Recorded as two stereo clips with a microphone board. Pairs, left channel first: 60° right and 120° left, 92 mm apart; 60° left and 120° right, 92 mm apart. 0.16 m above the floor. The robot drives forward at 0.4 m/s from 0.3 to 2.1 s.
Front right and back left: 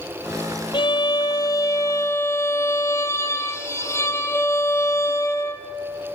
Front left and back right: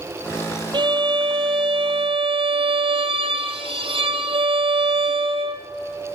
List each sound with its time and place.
0.7 s a violin: 90° right, 0.9 m; by 5.7 s 120° right, 1.1 m